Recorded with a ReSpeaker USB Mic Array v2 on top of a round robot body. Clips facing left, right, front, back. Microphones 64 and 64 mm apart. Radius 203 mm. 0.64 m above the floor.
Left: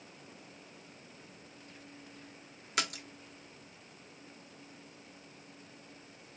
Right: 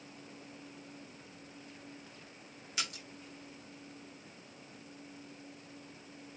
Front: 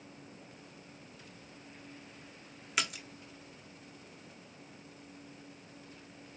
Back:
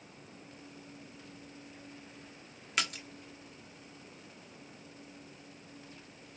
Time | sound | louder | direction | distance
2.8 | a splash | left 6 dB, even | 85° left | 1.2 m